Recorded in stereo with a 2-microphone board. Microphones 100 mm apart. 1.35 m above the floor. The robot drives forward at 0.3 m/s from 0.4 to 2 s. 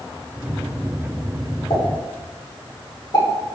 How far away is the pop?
About 1.0 m.